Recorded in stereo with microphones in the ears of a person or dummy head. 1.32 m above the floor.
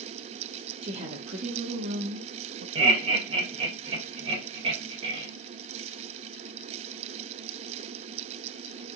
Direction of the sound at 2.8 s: 35° right (ahead or behind).